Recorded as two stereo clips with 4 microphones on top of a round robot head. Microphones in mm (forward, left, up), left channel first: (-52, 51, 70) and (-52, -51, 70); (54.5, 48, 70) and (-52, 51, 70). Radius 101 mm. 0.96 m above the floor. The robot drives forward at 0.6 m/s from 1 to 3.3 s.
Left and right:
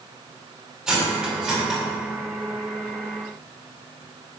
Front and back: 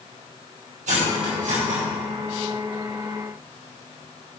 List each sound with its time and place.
0.9 s cutlery clinking: 175° right, 2 m